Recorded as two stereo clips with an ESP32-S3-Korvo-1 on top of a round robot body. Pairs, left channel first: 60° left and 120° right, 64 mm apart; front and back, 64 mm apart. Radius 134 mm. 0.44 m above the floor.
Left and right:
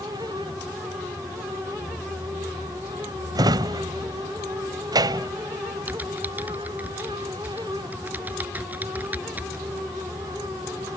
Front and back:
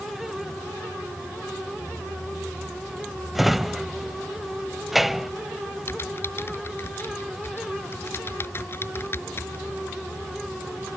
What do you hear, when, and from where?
3.4 s a drawer: 90° right
5.9 s typing on a keyboard: 55° right